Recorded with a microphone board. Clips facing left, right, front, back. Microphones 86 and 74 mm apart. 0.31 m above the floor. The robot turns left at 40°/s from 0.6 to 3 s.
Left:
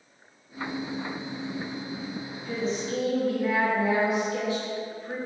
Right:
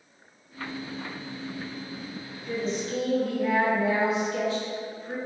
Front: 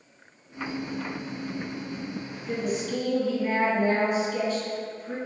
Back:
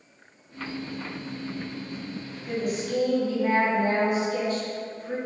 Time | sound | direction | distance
2.5 | a woman speaking | 175° right | 1.8 m